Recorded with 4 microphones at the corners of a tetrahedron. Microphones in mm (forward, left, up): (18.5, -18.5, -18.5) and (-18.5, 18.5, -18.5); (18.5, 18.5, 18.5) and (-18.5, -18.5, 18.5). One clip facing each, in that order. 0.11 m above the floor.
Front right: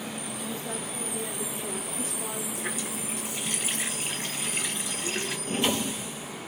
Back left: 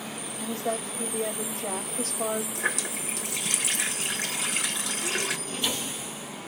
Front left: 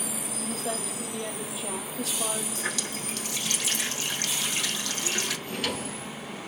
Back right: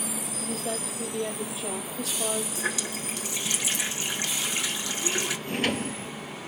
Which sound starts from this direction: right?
A drawer, at 5.5 s.